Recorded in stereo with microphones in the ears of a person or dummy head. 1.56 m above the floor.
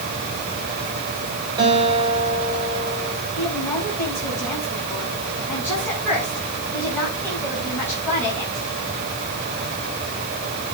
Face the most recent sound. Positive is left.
turn(degrees=10)  # may be behind; listen again after turning